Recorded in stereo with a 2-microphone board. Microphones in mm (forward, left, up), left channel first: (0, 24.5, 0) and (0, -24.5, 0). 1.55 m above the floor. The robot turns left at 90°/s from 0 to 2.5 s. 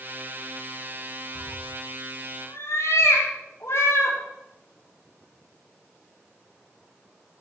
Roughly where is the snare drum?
I don't hear a snare drum.